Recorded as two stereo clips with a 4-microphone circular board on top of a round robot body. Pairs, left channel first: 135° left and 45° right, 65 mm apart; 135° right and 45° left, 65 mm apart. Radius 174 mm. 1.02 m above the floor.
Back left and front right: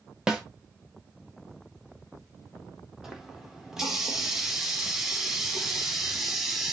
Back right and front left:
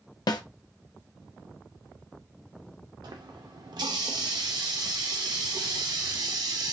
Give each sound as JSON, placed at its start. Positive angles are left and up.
{"t": 0.3, "sound": "a snare drum", "azimuth_deg": -125, "distance_m": 0.8}
{"t": 3.0, "sound": "a running tap", "azimuth_deg": 40, "distance_m": 0.9}